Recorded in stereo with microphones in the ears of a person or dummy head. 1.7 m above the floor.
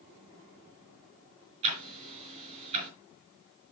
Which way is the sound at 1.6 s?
30° right (ahead or behind).